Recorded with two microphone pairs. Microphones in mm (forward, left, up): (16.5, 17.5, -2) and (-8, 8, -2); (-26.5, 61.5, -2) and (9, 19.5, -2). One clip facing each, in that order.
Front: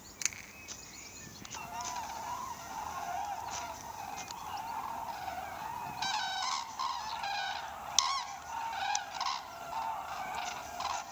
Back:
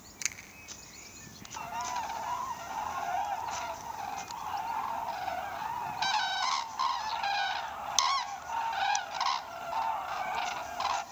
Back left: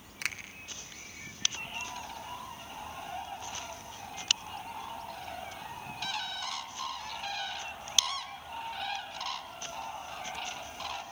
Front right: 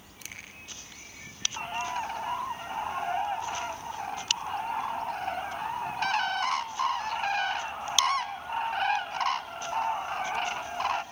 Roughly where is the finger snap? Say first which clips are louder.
Back 1 dB, back left 10 dB; left.